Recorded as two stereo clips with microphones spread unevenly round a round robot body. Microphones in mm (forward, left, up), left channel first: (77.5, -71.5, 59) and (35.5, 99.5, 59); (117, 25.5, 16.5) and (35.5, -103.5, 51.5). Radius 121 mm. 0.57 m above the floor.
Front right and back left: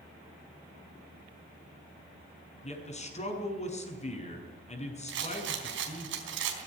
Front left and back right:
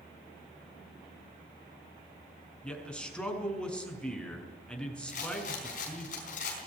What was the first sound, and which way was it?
A man speaking, 25° right.